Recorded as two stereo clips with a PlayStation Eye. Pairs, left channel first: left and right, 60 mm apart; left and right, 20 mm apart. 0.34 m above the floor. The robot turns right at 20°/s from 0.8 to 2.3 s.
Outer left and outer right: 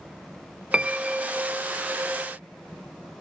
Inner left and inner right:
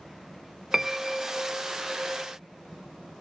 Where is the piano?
15° right (ahead or behind); by 1.5 s 5° right (ahead or behind).